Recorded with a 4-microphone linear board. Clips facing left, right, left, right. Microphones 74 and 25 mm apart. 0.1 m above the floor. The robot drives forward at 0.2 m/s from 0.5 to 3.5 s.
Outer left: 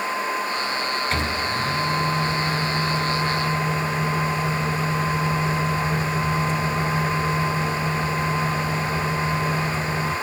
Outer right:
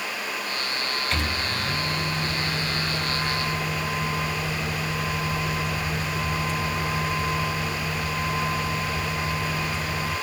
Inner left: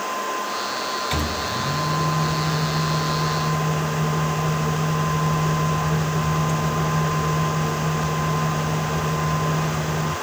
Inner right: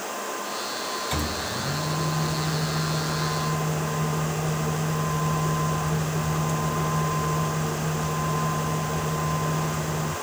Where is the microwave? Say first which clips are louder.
Outer left 4 dB, inner left 4 dB; 35° left (ahead or behind), 1.2 m; by 10.1 s 30° left (ahead or behind), 1.3 m.